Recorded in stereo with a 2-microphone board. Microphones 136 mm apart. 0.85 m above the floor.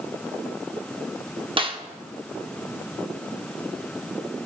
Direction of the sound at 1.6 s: 40° right (ahead or behind).